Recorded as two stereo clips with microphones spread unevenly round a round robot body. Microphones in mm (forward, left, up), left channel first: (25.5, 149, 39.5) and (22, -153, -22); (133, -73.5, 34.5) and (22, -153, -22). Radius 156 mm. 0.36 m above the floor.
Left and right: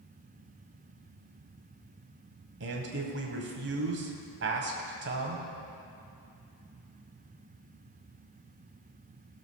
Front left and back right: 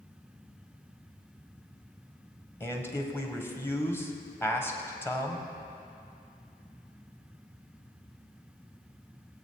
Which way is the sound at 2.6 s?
50° right.